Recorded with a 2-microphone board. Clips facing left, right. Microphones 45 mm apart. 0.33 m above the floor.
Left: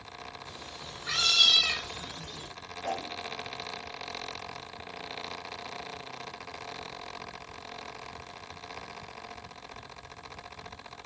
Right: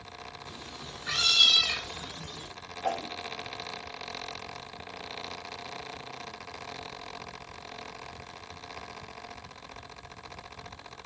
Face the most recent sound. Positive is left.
turn(degrees=-55)  # may be behind; listen again after turning